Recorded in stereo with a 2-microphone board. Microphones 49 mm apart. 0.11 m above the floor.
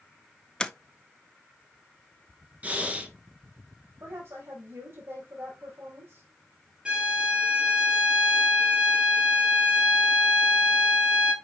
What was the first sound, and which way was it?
A sliding door, 15° left (ahead or behind).